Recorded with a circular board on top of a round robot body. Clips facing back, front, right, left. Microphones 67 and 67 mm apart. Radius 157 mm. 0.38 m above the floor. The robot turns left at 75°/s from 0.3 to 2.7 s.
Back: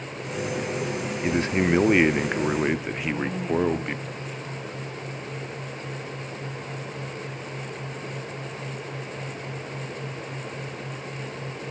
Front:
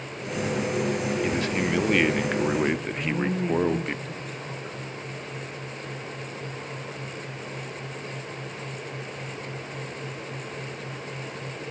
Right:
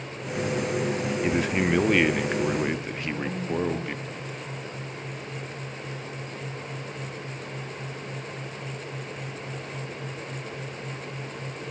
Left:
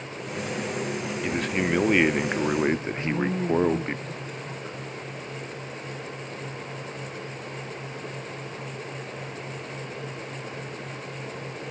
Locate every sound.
1.2 s a man speaking: 150° right, 1.2 m; by 4.0 s 100° left, 1.2 m
3.0 s a man speaking: 40° left, 8 m